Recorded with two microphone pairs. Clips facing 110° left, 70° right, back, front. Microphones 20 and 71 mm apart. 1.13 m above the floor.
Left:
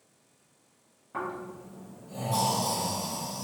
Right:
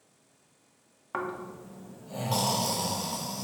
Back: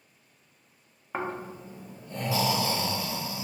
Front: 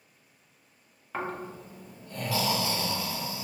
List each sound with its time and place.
1.1 s snoring: 115° right, 0.6 m